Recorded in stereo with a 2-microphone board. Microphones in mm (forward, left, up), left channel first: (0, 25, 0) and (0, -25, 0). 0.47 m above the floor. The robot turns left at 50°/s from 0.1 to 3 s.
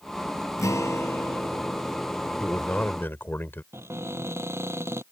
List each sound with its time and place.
0.6 s a guitar: 90° left; by 2.6 s 15° right
2.4 s a man speaking: 155° left; by 3.6 s 125° left
3.7 s a cupboard door: 55° right (ahead or behind)